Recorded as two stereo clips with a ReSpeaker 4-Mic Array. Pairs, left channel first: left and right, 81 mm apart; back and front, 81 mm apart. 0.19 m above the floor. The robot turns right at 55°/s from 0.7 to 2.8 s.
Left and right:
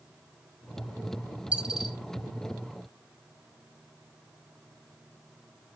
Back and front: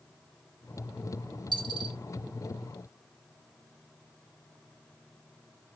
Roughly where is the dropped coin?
Ahead.